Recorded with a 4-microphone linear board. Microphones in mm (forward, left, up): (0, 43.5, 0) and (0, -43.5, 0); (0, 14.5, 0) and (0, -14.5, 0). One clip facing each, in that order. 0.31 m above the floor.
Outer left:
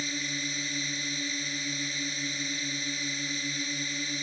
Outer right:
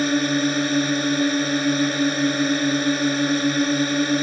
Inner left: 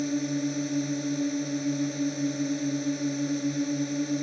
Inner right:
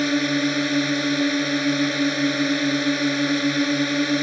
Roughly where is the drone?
Right.